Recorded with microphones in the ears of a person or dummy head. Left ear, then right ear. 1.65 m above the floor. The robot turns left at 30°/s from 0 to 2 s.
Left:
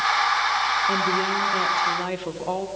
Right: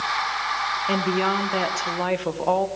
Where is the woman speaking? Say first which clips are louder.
Left 1 dB; 115° right, 1.2 m; by 2.7 s 150° right, 1.2 m.